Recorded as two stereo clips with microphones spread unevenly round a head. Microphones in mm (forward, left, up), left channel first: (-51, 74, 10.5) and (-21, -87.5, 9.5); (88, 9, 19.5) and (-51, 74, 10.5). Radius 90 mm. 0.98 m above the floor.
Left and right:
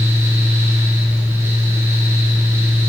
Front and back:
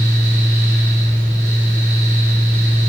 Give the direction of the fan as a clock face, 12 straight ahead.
5 o'clock.